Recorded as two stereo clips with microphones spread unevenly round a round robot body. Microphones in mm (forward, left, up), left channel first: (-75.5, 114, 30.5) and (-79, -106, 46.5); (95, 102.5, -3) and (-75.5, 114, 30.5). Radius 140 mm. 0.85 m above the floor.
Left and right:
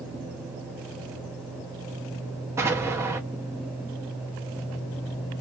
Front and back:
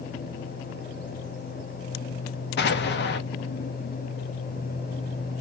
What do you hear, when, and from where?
2.6 s an explosion: 10° right, 0.6 m